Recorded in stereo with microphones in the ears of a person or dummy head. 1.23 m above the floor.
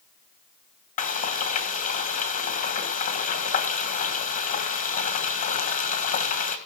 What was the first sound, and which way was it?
Frying, 40° left (ahead or behind).